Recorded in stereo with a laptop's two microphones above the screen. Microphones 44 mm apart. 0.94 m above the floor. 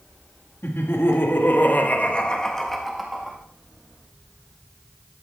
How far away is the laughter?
About 1.7 m.